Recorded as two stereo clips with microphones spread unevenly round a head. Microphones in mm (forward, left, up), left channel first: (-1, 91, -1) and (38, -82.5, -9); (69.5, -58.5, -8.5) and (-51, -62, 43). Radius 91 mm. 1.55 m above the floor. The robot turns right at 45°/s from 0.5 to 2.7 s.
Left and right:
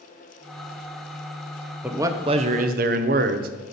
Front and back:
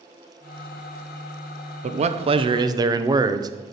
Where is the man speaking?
160° right, 0.6 m; by 3.5 s 120° right, 0.6 m.